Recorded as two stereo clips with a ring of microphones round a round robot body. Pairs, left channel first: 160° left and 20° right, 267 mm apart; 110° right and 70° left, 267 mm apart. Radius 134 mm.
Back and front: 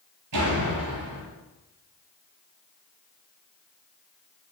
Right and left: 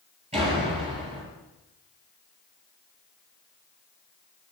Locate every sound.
0.3 s a door slam: straight ahead, 9 m